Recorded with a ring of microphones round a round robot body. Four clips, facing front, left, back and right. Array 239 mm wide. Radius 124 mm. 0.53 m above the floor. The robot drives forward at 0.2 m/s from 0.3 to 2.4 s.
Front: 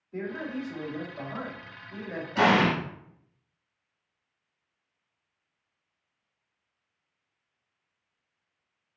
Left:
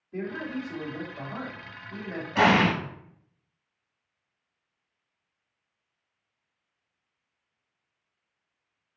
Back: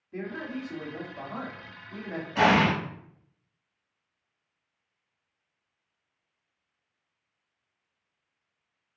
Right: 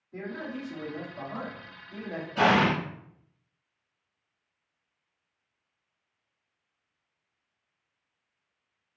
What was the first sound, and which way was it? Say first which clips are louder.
A man speaking: left 4 dB, front 1 dB; 160° left.